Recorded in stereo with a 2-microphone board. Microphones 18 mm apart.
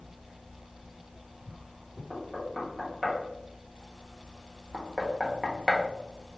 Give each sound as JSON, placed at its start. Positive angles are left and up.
{"t": 2.1, "sound": "knocking", "side_deg": -5, "distance_m": 0.8}